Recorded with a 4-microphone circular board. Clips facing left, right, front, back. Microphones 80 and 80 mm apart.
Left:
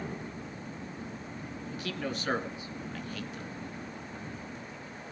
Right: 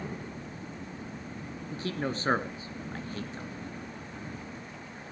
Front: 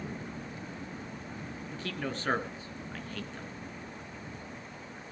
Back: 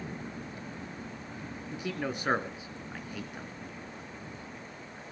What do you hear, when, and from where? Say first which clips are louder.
1.7 s a man speaking: right 3 dB, back 3 dB; 110° right, 1.3 m